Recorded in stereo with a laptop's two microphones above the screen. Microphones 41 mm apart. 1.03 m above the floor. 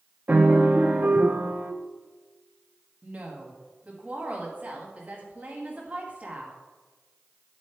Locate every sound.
0.3 s a piano: 40° right (ahead or behind), 0.6 m
3.0 s a woman speaking: 35° right (ahead or behind), 1.2 m